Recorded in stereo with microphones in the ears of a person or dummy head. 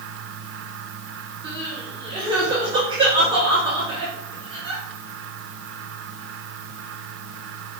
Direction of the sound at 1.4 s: 30° right (ahead or behind).